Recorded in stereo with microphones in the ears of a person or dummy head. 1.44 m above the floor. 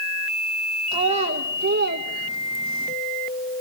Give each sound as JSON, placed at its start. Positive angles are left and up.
{"t": 0.9, "sound": "a child speaking", "side_deg": -30, "distance_m": 1.1}